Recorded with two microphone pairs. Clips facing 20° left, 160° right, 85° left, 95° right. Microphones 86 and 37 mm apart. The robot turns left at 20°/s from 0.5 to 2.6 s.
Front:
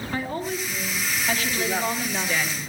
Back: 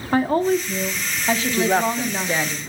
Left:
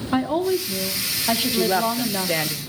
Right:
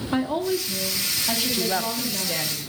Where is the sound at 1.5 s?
160° left, 1.1 m; by 2.6 s 140° left, 1.1 m.